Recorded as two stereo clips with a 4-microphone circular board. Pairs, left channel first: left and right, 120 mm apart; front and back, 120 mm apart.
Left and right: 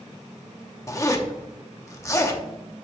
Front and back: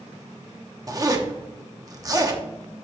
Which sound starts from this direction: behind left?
A zipper, at 0.9 s.